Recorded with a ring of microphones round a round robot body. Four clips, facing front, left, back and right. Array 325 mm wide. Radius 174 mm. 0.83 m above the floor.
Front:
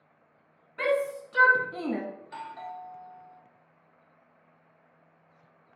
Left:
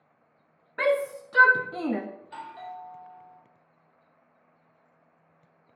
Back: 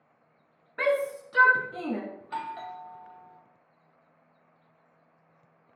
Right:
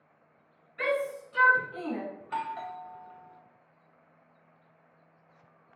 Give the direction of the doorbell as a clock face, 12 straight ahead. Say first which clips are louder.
Right 6 dB, back 4 dB; 4 o'clock.